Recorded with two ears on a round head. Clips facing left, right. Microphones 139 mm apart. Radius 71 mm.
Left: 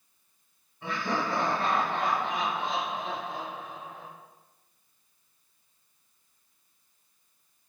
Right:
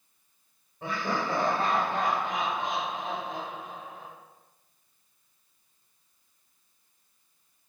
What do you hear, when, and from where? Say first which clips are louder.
0.8 s laughter: even; 40° right (ahead or behind), 2.5 m